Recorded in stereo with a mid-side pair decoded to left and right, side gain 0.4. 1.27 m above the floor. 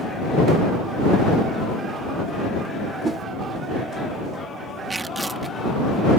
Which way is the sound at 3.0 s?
40° right.